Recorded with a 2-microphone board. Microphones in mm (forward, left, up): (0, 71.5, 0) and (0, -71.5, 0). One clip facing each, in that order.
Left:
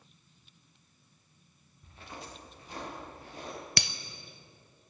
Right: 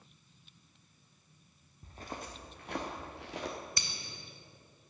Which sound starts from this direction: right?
Footsteps, at 1.8 s.